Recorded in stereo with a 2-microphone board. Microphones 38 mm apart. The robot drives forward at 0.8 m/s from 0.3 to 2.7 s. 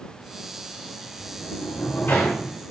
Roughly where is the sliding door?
Left.